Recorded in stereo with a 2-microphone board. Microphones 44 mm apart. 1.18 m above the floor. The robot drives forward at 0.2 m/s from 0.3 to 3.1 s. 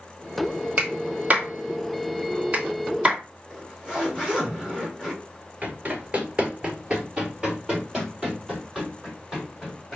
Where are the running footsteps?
30° right (ahead or behind), 1.3 m; by 10.0 s centre (ahead or behind), 3.5 m.